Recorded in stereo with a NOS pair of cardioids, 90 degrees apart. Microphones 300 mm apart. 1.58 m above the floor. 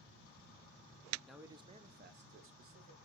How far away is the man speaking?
About 0.7 m.